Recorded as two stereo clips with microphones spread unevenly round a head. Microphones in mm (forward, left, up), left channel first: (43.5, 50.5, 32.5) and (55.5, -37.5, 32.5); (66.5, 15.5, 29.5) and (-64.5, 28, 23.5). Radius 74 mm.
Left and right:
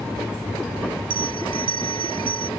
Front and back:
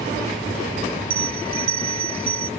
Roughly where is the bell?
Behind right.